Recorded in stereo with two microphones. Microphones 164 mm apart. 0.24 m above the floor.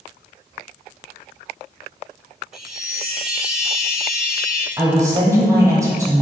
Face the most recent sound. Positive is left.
turn(degrees=-20)  # may be behind; listen again after turning